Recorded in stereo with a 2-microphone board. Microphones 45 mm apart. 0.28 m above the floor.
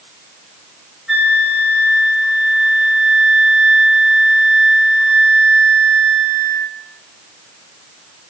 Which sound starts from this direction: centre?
A flute, at 1.1 s.